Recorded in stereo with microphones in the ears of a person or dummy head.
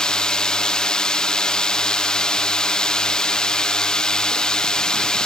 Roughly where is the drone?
Centre.